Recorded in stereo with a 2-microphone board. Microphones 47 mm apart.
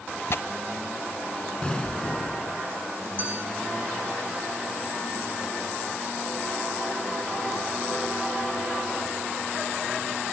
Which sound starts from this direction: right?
A clink, at 3.2 s.